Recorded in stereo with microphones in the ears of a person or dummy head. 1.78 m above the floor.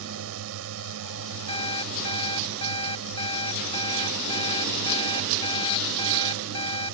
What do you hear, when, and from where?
0.0 s a drone: 80° right
1.5 s an alarm clock: 30° left (ahead or behind)